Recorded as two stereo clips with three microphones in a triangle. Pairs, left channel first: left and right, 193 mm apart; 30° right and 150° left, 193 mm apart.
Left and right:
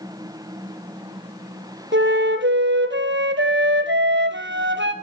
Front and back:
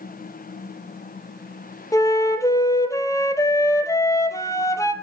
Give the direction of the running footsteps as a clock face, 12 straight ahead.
I don't hear running footsteps.